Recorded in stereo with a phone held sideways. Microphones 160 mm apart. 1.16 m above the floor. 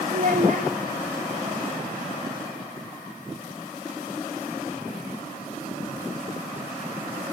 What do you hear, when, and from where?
0.1 s a child speaking: 60° right (ahead or behind), 0.8 m